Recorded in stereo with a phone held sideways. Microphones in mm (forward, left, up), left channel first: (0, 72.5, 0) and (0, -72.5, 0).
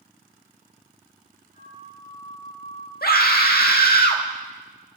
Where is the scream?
75° left (ahead or behind), 1.7 m.